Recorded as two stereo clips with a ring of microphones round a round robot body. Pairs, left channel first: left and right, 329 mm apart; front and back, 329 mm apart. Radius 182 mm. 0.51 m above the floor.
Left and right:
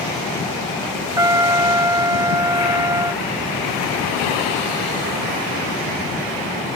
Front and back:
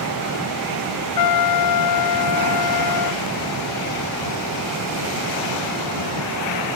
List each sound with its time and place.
1.2 s a trumpet: 10° right